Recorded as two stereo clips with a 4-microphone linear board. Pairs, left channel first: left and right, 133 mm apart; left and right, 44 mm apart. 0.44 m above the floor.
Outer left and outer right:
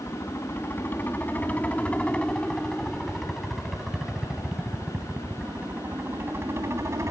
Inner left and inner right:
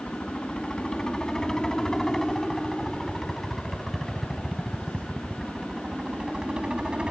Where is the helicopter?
20° left (ahead or behind); by 7.1 s 25° right (ahead or behind).